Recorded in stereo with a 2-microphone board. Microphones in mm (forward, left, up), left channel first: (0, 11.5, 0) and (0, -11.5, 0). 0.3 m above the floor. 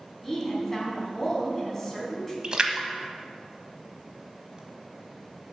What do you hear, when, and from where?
0.2 s a woman speaking: 15° left (ahead or behind), 3 m
2.4 s a splash: 40° right (ahead or behind), 1.1 m